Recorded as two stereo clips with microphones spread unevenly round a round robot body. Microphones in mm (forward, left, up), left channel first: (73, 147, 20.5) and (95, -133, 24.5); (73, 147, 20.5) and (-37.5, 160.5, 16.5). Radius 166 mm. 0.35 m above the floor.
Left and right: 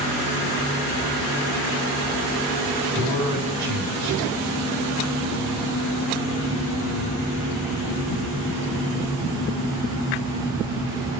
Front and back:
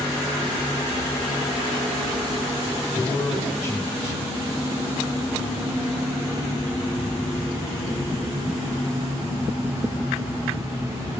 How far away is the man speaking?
About 3.5 m.